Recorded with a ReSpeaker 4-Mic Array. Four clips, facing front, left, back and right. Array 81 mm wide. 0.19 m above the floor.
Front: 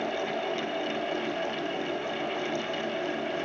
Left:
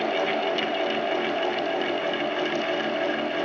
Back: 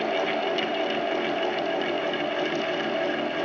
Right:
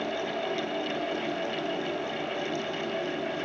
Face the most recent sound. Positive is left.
No sound to turn to.